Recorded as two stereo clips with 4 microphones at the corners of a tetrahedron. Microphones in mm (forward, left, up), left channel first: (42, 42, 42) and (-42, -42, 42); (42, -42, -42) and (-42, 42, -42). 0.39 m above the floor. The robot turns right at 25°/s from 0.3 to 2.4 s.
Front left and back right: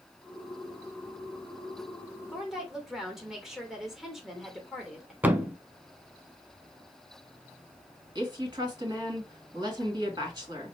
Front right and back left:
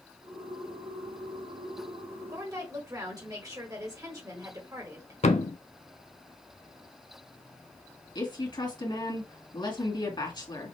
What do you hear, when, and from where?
2.3 s a woman speaking: 140° left, 1.5 m
5.2 s a thud: 60° right, 0.5 m
8.2 s a woman speaking: 85° right, 2 m